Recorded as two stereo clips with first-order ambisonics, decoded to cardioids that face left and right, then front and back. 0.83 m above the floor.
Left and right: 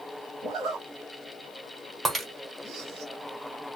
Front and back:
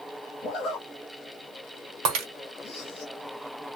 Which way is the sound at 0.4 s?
40° right.